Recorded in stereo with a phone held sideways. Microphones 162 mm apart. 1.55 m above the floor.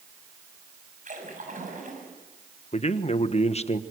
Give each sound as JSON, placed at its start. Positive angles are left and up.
{"t": 1.1, "sound": "a splash", "side_deg": -55, "distance_m": 6.5}
{"t": 2.7, "sound": "a man speaking", "side_deg": 40, "distance_m": 1.3}